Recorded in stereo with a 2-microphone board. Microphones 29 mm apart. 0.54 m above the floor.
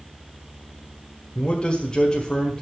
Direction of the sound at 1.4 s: 40° left (ahead or behind).